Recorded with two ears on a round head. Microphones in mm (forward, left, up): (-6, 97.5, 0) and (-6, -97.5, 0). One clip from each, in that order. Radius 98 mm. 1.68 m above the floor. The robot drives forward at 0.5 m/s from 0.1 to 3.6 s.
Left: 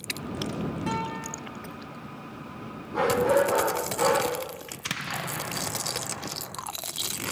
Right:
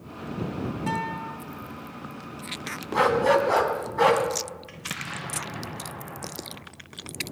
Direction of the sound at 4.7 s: 10° left (ahead or behind).